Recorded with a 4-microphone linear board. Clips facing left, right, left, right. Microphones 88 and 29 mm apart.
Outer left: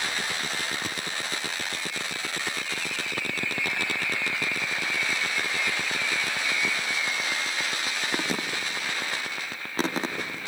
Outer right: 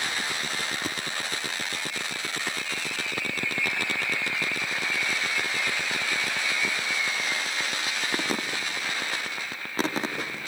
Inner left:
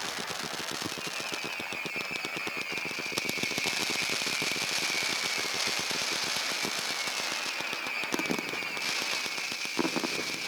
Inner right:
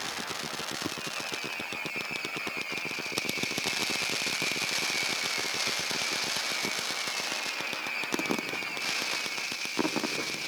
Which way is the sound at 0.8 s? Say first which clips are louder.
Outer right 2 dB, inner right 1 dB; 10° right (ahead or behind).